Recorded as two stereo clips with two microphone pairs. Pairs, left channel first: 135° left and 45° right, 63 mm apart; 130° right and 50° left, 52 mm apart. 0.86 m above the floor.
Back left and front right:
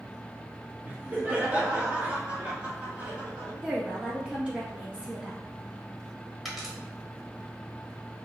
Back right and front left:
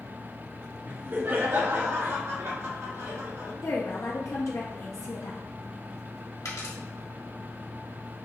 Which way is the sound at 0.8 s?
10° left.